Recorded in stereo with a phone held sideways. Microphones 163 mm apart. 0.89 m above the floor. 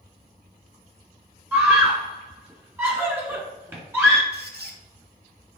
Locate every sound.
1.5 s a scream: 15° right (ahead or behind), 2.5 m
4.3 s a squeak: 80° right, 1.0 m